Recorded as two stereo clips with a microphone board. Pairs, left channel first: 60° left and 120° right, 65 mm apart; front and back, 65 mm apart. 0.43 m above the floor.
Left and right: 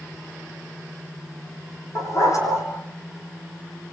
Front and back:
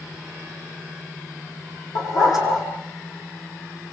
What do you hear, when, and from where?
1.9 s a dog barking: 20° left, 6.5 m